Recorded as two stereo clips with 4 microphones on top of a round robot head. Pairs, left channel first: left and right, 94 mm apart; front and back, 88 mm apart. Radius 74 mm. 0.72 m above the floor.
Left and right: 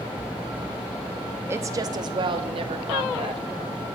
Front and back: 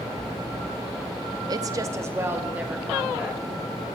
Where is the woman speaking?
150° right, 0.6 m; by 3.4 s 95° right, 1.4 m.